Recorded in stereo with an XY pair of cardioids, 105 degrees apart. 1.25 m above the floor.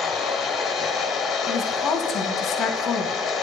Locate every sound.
0.0 s a machine running: 70° left, 1.3 m
1.5 s a woman speaking: 65° left, 1.4 m